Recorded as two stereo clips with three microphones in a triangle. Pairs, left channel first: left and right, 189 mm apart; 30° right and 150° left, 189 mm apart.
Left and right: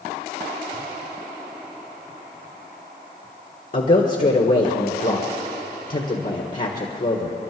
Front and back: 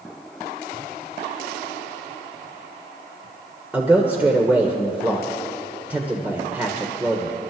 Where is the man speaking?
70° left, 1.5 m.